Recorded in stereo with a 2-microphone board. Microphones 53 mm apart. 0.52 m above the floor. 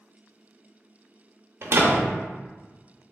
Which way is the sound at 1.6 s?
50° right (ahead or behind).